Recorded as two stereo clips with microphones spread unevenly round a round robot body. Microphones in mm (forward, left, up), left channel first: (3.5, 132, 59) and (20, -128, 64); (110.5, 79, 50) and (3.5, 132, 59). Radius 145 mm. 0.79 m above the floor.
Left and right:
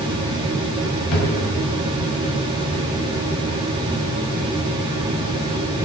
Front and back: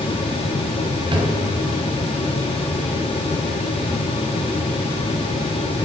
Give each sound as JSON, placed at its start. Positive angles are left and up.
{"t": 1.1, "sound": "a drawer", "azimuth_deg": 105, "distance_m": 3.5}